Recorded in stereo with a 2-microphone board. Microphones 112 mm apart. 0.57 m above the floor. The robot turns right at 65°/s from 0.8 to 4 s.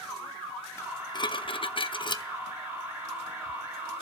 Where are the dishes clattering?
35° left, 0.5 m; by 2.2 s 130° left, 0.5 m.